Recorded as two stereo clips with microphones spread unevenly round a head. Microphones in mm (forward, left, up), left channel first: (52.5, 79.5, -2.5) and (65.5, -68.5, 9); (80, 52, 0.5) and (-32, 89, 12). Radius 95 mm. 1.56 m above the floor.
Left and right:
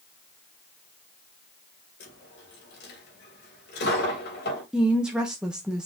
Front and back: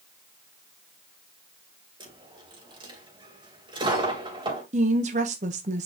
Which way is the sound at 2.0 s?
120° left.